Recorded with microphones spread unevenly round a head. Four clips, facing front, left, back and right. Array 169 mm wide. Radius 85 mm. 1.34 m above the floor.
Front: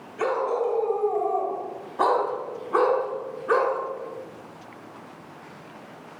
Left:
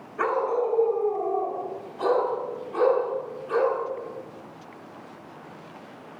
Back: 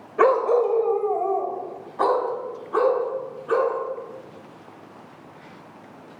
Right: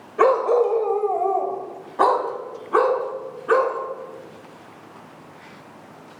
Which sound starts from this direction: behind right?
A dog barking, at 0.2 s.